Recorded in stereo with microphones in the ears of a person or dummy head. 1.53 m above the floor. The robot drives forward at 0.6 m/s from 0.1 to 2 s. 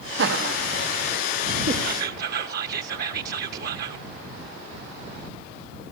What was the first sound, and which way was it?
Laughter, 70° right (ahead or behind).